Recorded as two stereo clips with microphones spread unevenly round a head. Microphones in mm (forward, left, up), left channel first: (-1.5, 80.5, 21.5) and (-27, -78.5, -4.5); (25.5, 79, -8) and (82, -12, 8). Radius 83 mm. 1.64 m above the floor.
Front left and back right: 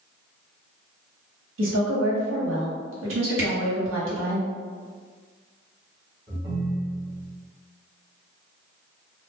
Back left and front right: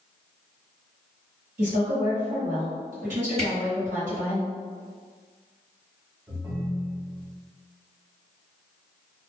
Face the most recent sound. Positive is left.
turn(degrees=-30)